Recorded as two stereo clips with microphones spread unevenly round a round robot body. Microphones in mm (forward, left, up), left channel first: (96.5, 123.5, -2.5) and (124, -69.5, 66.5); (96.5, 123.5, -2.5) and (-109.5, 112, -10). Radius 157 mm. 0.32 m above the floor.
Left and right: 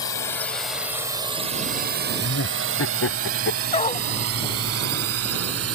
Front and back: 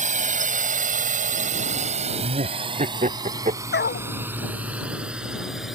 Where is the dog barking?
40° left.